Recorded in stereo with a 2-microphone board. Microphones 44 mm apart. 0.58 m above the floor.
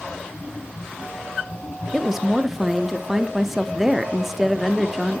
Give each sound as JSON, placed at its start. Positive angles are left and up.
{"t": 1.9, "sound": "a woman speaking", "side_deg": -5, "distance_m": 0.6}